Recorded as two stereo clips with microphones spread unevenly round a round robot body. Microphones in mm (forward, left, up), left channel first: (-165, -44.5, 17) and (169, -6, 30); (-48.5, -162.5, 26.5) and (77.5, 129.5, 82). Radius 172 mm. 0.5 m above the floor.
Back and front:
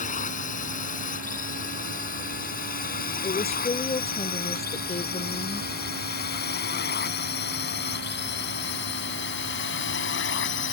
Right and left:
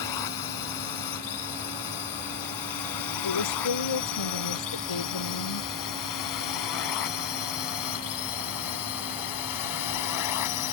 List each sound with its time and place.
0.0 s a drone: 105° right; by 10.7 s 120° right
3.2 s a woman speaking: 100° right